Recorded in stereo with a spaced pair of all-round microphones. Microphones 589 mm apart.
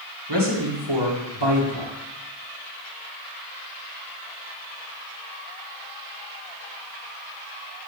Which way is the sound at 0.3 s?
45° right (ahead or behind).